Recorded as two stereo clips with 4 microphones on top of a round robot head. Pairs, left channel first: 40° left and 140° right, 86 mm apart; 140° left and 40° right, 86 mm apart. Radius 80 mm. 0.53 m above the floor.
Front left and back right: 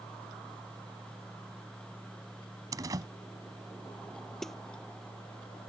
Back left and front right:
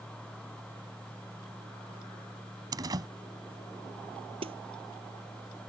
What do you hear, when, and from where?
2.7 s a door slam: 85° right
4.4 s a snare drum: 45° right